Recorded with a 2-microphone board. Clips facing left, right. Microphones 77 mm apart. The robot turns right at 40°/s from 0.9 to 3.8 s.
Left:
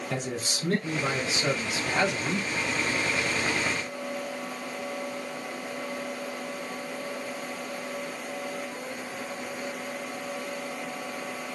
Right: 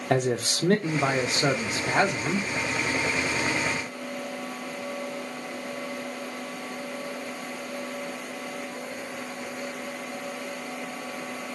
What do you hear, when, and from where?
0.1 s a man speaking: 75° right, 2 m; by 2.5 s 15° right, 2 m